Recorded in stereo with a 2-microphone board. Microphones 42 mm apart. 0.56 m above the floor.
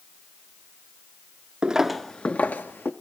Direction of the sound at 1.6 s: 20° right (ahead or behind).